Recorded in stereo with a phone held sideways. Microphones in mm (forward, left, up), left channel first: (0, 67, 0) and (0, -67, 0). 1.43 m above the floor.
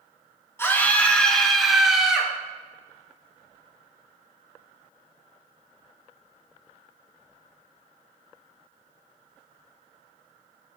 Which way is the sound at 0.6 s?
20° left (ahead or behind).